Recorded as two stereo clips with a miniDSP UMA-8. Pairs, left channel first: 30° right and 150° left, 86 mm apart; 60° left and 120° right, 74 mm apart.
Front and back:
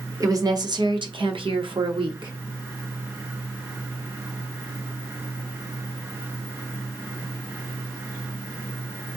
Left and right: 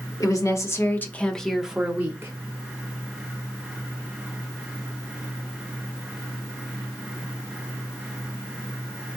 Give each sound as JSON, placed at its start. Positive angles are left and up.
{"t": 0.2, "sound": "a woman speaking", "azimuth_deg": 100, "distance_m": 1.0}